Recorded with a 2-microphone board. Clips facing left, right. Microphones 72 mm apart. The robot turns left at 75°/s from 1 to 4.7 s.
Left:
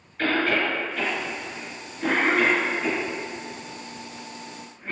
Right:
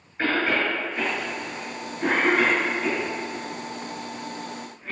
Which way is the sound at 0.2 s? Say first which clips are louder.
Even; 20° right (ahead or behind).